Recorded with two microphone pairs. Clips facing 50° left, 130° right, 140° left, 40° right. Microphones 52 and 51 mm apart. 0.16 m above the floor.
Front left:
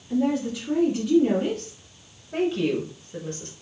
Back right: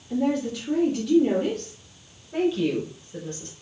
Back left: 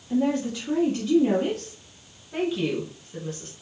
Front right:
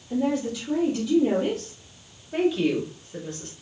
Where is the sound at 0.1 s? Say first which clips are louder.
Front left 1 dB, back left 1 dB; 120° left, 1.4 m.